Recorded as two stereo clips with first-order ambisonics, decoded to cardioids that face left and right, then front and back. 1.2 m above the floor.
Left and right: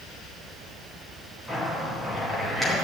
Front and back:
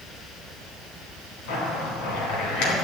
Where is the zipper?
5° left, 3.5 m.